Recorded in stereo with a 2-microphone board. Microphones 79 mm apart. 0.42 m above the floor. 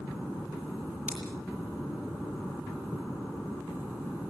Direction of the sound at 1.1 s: 10° right (ahead or behind).